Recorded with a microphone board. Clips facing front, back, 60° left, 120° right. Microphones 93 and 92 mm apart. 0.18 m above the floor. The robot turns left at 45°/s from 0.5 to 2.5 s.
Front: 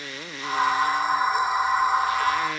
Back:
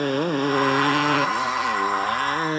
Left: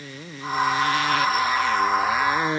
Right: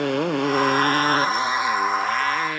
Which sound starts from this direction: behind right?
A motorcycle, at 0.0 s.